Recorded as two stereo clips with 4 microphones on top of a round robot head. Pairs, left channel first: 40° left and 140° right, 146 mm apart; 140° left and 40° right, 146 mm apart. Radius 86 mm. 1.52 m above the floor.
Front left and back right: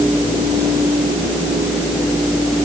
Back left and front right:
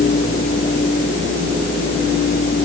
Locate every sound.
Only background noise.